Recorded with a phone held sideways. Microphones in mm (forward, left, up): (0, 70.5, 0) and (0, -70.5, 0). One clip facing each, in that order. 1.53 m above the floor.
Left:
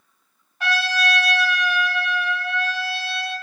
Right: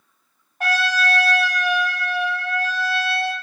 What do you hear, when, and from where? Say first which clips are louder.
0.6 s a trumpet: right 2 dB; 50° right (ahead or behind), 0.7 m